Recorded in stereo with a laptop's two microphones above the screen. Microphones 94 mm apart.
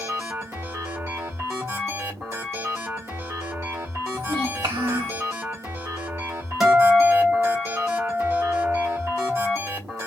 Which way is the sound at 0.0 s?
30° right (ahead or behind).